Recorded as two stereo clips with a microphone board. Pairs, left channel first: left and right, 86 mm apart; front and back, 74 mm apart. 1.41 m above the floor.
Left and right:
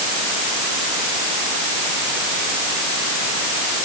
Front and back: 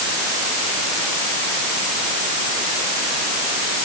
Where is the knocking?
No knocking in this recording.